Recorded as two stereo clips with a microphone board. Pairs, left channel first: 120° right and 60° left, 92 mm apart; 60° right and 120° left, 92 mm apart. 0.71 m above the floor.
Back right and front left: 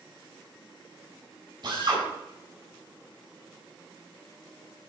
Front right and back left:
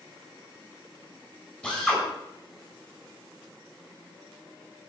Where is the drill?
20° left, 7 m.